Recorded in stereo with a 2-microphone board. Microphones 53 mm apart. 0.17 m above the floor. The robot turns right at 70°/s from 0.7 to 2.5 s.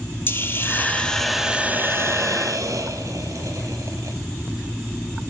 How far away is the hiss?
About 1.1 m.